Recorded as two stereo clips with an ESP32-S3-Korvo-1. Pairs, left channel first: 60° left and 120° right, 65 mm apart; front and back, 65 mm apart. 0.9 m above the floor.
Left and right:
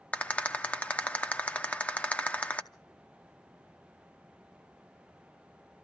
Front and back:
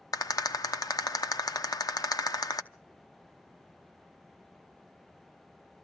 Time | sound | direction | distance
0.1 | a rattle | 5° right | 0.7 m